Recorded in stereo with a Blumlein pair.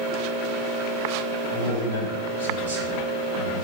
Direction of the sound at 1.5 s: 60° right.